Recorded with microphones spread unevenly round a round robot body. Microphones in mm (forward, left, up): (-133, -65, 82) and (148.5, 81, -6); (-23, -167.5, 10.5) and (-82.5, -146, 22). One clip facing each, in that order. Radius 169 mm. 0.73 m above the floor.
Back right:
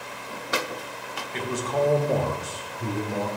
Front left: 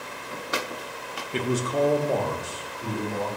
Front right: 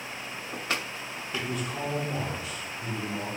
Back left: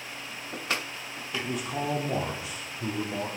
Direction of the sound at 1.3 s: 65° left.